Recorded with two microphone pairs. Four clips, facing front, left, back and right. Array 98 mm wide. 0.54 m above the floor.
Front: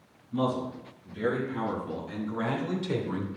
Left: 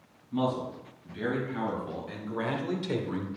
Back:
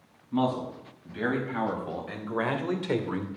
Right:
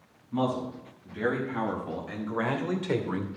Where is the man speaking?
155° right, 4.5 m; by 3.3 s 135° right, 1.4 m.